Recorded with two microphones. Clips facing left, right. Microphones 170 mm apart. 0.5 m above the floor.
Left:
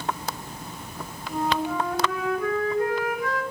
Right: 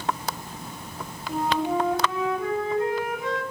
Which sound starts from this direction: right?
A flute, at 1.3 s.